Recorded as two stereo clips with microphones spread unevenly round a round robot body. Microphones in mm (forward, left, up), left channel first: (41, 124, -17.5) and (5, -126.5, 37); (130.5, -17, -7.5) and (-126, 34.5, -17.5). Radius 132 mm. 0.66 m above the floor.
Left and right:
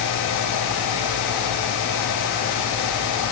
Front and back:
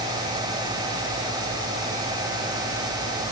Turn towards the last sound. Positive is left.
No sound to turn to.